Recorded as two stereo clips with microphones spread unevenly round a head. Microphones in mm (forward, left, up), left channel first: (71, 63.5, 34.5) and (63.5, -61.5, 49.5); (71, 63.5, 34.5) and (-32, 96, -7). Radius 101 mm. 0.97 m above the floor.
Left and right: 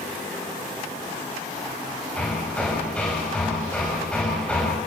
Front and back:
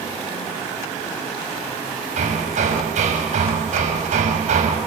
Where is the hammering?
170° left, 5 m.